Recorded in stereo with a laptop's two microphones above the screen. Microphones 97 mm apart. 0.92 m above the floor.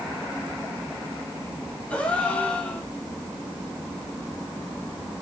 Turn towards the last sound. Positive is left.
turn(degrees=15)  # may be behind; listen again after turning